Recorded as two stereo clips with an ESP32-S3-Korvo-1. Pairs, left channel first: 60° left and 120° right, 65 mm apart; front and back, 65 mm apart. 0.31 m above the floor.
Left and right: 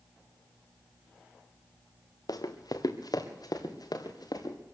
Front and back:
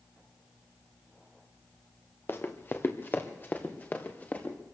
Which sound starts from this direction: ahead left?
Running footsteps, at 2.3 s.